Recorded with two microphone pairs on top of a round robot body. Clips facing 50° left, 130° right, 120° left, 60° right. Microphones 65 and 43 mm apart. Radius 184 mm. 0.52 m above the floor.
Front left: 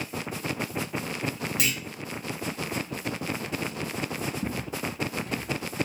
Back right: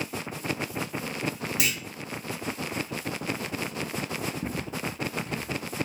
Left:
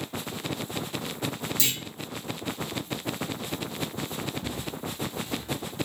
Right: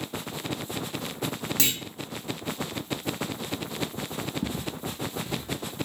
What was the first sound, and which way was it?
A clunk, 45° right.